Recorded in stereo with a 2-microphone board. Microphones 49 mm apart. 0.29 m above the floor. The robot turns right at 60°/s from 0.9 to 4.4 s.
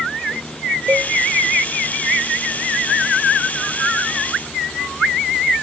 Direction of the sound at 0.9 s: 55° right (ahead or behind).